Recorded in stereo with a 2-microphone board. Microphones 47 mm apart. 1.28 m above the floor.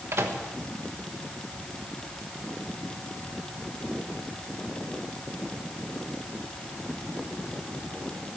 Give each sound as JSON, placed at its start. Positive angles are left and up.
{"t": 0.1, "sound": "a microwave", "side_deg": -65, "distance_m": 1.2}